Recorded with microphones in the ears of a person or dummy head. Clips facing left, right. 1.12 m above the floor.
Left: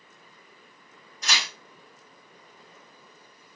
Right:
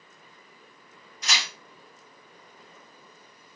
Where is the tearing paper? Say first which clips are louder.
Left 1 dB; 45° left (ahead or behind), 1.4 m.